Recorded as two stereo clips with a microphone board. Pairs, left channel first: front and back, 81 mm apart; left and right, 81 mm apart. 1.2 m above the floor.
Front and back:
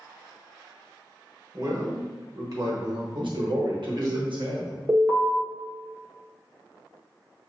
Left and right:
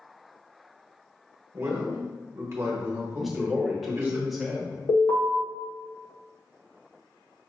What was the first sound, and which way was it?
A man speaking, 145° right.